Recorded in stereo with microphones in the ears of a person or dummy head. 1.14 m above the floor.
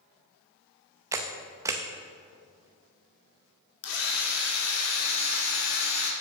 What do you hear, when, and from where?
1.1 s a camera shutter: 15° right (ahead or behind), 0.7 m
3.8 s a drill: 80° left, 2.0 m